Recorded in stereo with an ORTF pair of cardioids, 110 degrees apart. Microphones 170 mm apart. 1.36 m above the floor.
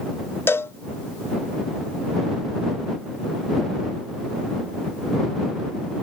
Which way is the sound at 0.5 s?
15° left.